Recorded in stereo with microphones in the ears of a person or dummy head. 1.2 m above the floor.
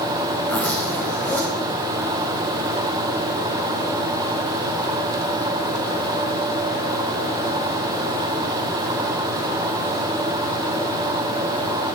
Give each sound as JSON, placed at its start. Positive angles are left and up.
{"t": 0.5, "sound": "a zipper", "side_deg": 5, "distance_m": 1.4}